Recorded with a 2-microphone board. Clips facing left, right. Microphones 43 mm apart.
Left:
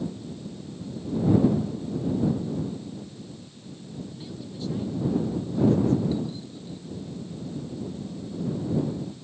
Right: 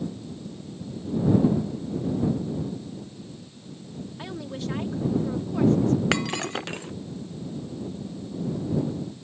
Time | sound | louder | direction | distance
4.2 | a woman speaking | right 4 dB | 70° right (ahead or behind) | ?
6.1 | breaking glass | right 5 dB | 80° right | ?